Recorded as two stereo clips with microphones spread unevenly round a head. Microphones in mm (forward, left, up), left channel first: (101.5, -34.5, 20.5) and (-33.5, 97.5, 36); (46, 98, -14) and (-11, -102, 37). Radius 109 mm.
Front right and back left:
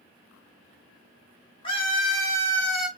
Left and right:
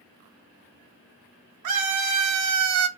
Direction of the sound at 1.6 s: 115° right.